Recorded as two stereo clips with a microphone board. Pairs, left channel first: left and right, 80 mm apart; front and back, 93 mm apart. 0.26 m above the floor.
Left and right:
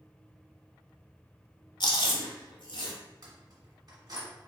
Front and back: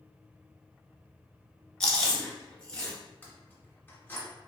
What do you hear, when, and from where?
1.8 s chewing: 80° left, 1.3 m
3.2 s keys jangling: 65° right, 1.5 m